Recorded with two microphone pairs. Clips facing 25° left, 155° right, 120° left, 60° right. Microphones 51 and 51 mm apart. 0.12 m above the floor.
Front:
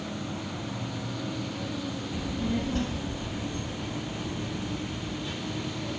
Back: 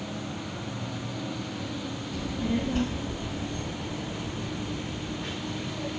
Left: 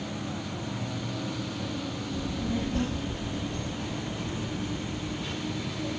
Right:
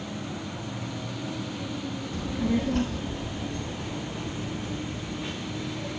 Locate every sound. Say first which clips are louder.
2.1 s a child speaking: back 2 dB, right 5 dB; 45° right, 1.0 m; by 5.9 s 125° right, 6 m